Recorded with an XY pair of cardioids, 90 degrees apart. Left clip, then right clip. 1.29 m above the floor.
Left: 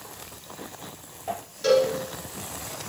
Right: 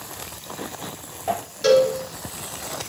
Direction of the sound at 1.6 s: 55° right.